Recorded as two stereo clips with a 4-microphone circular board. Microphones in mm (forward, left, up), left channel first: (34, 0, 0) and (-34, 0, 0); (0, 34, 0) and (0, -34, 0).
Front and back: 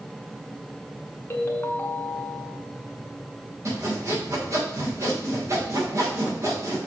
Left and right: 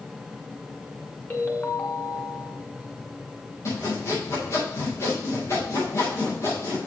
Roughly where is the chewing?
No chewing in this recording.